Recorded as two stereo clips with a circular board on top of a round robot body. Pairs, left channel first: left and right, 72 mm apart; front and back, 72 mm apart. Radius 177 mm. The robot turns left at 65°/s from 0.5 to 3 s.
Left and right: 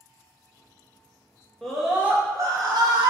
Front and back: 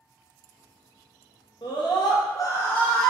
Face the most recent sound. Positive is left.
turn(degrees=-80)